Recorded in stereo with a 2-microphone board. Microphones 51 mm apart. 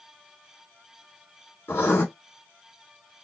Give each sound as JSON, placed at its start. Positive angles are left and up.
{"t": 1.7, "sound": "writing", "side_deg": 50, "distance_m": 1.7}